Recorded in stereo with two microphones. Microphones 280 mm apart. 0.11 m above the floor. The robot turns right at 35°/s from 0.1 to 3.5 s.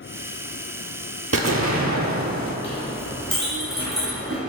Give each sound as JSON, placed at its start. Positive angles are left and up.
{"t": 1.3, "sound": "an explosion", "azimuth_deg": -115, "distance_m": 0.5}
{"t": 2.6, "sound": "a clink", "side_deg": 45, "distance_m": 1.9}